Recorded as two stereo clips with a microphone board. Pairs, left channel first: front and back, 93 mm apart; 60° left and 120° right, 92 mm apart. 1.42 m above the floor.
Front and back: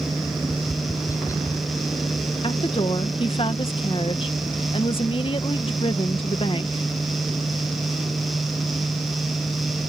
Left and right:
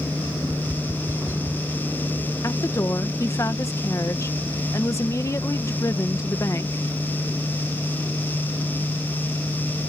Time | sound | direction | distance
0.5 | tapping | 55° right | ?
2.4 | a woman speaking | 5° left | ?